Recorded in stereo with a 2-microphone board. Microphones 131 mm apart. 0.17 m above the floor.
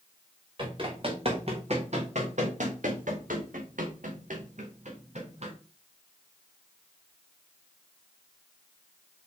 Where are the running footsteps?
40° right (ahead or behind), 3 m; by 5.5 s 55° right (ahead or behind), 2.5 m.